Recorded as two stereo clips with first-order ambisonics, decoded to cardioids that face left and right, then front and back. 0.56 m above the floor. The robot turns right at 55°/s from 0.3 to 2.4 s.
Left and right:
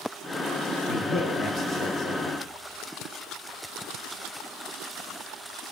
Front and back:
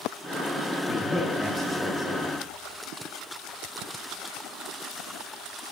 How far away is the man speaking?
About 1.4 m.